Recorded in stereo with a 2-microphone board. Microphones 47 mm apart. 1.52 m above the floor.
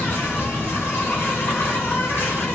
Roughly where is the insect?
Left.